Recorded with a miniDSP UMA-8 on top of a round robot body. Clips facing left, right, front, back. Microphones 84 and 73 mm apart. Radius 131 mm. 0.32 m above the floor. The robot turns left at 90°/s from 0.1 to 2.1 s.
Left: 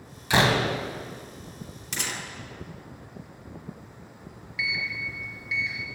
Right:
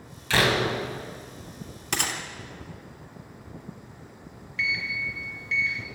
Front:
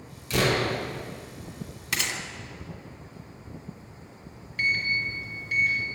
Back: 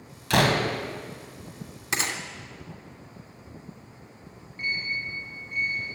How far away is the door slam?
About 2.5 m.